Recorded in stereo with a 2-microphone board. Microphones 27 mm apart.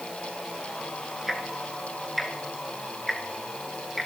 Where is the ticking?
Centre (ahead or behind), 2.5 m.